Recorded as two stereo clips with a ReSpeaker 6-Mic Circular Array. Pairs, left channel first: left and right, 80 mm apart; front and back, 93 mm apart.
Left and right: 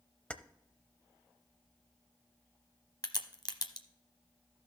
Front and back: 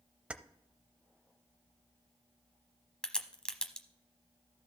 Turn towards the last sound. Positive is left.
turn(degrees=80)